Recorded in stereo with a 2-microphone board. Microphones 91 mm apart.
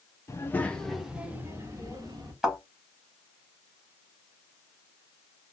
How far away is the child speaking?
About 0.8 m.